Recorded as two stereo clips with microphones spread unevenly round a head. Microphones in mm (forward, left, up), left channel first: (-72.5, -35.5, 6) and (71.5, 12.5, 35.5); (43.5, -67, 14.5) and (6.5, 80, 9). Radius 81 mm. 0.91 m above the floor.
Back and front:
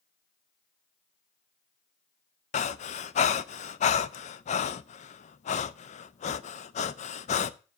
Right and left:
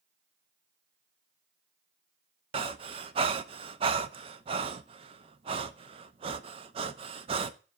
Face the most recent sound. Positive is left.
turn(degrees=160)